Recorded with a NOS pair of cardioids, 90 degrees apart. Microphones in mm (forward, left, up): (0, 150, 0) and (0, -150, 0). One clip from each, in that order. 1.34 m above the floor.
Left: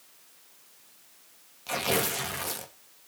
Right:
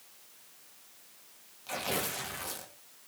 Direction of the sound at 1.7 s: 40° left.